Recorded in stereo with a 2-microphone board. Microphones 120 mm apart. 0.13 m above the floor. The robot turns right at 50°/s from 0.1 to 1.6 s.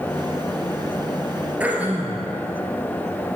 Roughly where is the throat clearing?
Centre.